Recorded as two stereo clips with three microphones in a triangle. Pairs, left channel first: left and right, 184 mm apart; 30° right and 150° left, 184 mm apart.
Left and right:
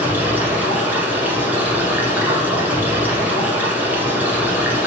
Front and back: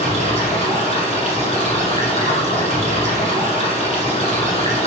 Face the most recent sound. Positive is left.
turn(degrees=-15)